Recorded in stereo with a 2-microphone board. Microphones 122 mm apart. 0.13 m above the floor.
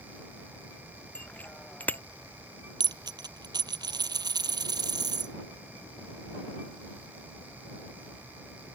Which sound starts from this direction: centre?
A bicycle bell, at 1.1 s.